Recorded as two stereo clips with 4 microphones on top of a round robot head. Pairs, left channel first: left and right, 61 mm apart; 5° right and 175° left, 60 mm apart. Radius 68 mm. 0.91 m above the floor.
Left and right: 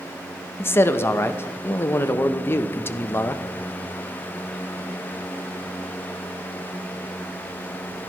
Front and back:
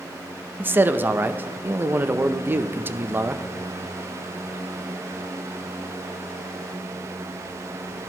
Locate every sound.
0.6 s a man speaking: 130° left, 0.7 m